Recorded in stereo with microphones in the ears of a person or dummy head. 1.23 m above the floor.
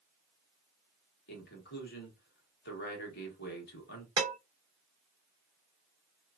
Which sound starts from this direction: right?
Dishes clattering, at 4.2 s.